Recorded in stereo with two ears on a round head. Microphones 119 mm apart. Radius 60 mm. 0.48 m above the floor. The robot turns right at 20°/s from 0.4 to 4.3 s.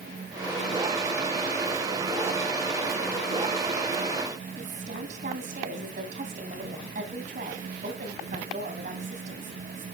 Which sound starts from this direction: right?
A woman speaking, at 4.6 s.